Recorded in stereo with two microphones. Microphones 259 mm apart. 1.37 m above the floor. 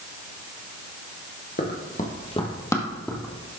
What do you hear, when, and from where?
1.6 s running footsteps: 40° left (ahead or behind), 1.8 m; by 3.5 s 5° right (ahead or behind), 2 m